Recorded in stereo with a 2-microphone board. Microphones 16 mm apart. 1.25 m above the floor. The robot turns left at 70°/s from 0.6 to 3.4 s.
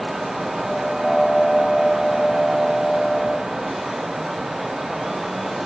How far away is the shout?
No shout in this recording.